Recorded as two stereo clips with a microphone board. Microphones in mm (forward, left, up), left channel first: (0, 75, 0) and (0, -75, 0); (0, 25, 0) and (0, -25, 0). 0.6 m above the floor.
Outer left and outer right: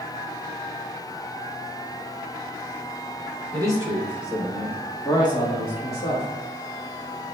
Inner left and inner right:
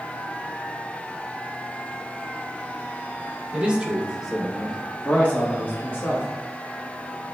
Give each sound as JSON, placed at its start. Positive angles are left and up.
{"t": 3.5, "sound": "a man speaking", "side_deg": -25, "distance_m": 1.2}